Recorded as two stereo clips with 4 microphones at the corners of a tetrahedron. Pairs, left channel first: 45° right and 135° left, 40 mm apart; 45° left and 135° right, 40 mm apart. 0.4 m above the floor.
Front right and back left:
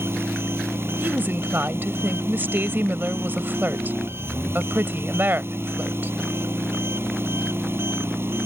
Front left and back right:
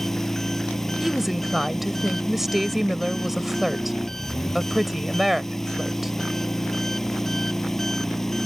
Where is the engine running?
125° left.